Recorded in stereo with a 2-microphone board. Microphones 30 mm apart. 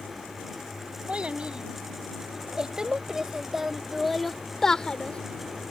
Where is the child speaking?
35° right (ahead or behind); by 5.7 s 60° left (ahead or behind).